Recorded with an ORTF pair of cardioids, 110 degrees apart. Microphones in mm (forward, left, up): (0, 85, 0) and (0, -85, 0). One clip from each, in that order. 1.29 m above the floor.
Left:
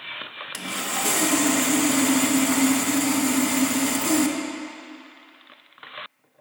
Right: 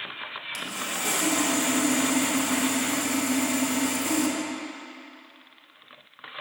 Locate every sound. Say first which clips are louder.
0.5 s sawing: left 4 dB; 30° left, 0.8 m